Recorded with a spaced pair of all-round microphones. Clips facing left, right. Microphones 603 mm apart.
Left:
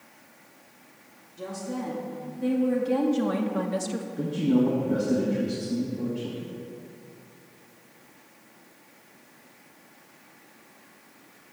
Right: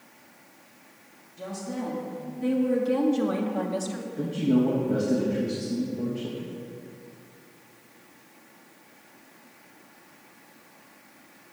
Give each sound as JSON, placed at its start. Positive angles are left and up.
{"t": 1.4, "sound": "a woman speaking", "side_deg": -10, "distance_m": 2.5}
{"t": 4.2, "sound": "a man speaking", "side_deg": 0, "distance_m": 1.2}